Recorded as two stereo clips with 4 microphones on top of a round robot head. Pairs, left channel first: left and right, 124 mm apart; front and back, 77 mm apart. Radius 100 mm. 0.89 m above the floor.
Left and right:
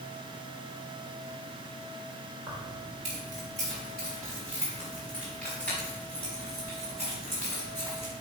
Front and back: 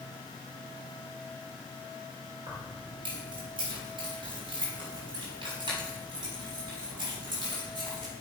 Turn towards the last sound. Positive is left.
turn(degrees=165)